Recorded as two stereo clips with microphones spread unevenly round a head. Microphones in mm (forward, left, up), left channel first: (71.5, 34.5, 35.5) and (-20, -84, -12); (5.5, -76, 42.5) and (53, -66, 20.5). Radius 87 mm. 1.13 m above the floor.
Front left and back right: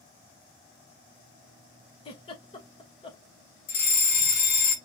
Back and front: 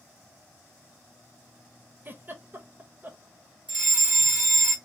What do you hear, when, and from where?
2.0 s a giggle: 10° right, 1.2 m
3.7 s a fire alarm: 40° left, 2 m